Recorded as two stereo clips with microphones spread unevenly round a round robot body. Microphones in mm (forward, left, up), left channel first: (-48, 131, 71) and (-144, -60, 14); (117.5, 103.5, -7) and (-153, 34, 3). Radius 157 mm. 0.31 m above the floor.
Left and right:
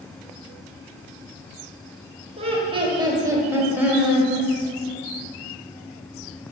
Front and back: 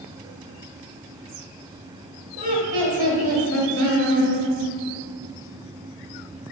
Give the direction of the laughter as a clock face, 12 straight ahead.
4 o'clock.